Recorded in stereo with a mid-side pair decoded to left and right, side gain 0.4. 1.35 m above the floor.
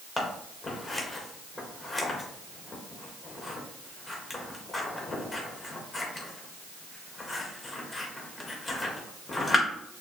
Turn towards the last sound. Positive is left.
turn(degrees=35)